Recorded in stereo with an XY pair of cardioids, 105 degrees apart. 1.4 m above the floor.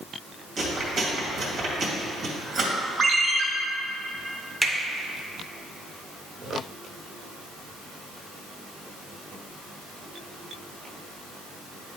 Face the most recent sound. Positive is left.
turn(degrees=-10)